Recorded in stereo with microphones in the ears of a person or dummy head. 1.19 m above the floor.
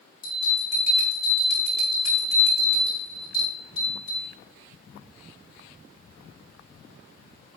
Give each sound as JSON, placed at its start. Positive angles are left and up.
{"t": 0.2, "sound": "a bell", "side_deg": 50, "distance_m": 3.0}